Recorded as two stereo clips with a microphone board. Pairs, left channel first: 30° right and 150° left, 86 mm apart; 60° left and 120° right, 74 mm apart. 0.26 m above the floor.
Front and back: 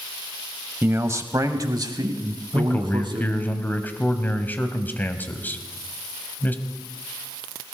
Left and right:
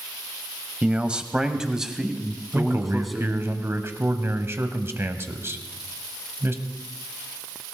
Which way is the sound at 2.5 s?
85° right.